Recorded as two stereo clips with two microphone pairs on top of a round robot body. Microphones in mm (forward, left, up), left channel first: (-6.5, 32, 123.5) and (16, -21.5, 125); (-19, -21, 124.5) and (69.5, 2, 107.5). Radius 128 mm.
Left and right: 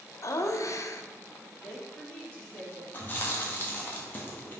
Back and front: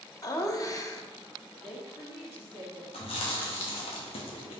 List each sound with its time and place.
0.2 s laughter: 135° left, 0.6 m
1.6 s a woman speaking: straight behind, 2 m
2.9 s chewing: 175° left, 0.8 m